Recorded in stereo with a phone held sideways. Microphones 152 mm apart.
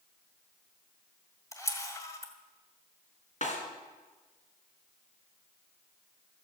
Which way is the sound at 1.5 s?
20° left (ahead or behind).